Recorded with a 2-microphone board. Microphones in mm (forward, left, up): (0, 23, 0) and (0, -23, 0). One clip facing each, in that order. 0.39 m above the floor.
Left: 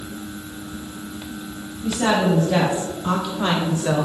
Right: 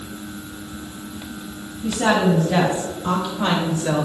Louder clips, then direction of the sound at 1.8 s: Right 1 dB; 5° right (ahead or behind).